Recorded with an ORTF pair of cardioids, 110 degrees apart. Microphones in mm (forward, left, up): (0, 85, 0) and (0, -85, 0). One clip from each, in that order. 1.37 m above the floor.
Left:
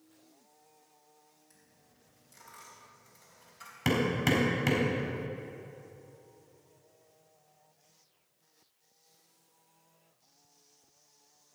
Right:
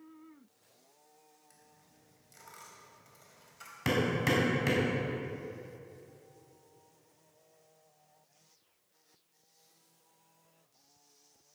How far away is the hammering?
About 4 m.